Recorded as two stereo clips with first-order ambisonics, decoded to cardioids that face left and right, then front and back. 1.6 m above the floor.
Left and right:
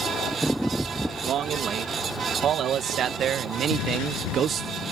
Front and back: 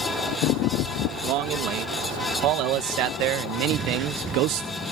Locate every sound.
1.2 s a man speaking: 145° right; by 4.7 s 150° right
3.7 s an explosion: 115° left